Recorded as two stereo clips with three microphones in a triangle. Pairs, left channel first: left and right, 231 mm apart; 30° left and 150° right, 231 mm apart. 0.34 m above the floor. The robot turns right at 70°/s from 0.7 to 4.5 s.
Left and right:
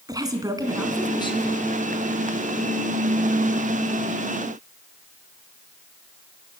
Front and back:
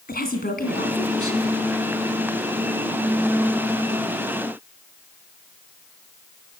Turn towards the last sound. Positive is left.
turn(degrees=-110)